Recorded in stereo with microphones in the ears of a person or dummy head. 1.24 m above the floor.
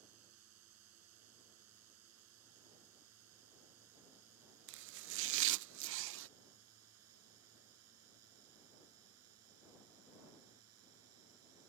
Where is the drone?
85° right.